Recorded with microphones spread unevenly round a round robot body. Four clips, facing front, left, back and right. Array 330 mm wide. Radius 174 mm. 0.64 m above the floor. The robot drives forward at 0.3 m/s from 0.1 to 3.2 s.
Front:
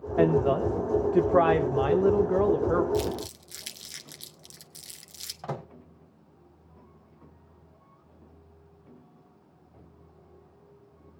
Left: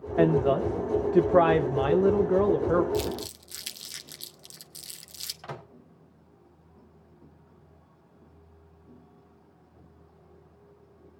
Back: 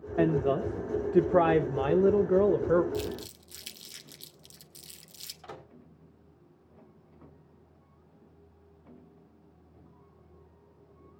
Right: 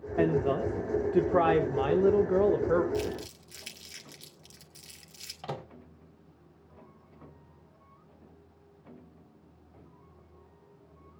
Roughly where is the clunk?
No clunk in this recording.